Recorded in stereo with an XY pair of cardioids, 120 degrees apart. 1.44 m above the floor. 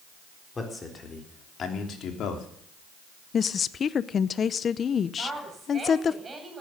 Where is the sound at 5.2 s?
25° right, 8.5 m.